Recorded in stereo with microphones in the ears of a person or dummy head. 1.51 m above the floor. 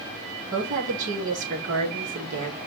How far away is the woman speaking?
About 4 m.